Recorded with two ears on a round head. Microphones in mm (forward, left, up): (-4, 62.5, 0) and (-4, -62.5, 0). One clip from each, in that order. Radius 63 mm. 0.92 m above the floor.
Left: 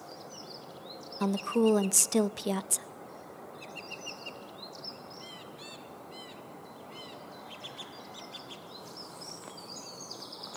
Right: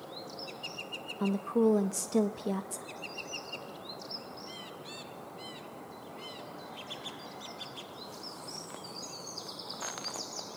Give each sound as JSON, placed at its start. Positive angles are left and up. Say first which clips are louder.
{"t": 1.2, "sound": "a woman speaking", "louder": "left 1 dB", "side_deg": 60, "distance_m": 0.6}